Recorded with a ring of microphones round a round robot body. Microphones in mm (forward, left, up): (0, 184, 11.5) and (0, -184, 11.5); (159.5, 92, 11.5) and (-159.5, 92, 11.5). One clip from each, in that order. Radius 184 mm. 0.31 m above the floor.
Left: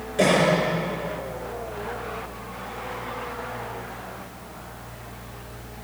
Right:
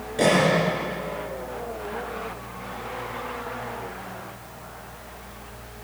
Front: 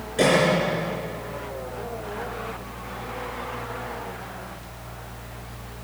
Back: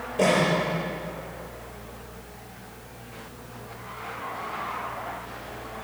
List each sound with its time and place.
0.2 s a cough: 5° left, 4 m